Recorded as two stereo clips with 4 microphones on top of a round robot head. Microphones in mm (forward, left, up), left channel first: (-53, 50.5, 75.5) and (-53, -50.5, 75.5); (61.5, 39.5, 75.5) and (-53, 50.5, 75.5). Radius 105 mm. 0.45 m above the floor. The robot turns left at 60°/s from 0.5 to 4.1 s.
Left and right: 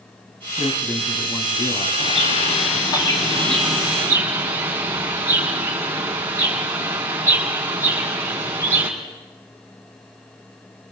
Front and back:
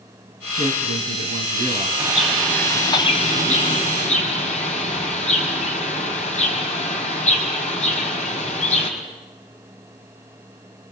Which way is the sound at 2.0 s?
100° left.